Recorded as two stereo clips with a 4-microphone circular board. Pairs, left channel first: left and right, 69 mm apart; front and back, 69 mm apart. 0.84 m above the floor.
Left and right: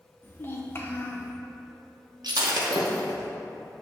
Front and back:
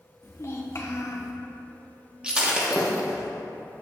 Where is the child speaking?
40° left, 0.6 m.